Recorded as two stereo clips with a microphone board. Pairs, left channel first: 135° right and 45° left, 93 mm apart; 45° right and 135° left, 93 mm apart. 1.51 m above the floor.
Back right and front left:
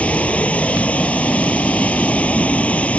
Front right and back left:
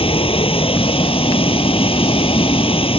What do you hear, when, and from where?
0.0 s running water: 60° right